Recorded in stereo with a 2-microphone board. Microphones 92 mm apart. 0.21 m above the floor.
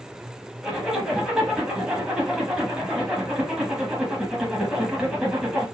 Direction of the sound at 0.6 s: 10° right (ahead or behind).